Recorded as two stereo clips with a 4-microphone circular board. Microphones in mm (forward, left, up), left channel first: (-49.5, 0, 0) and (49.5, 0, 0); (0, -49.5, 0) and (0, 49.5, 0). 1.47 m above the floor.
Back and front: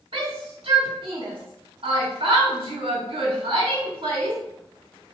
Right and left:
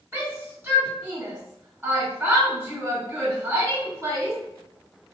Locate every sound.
0.1 s a shout: 20° left, 2.0 m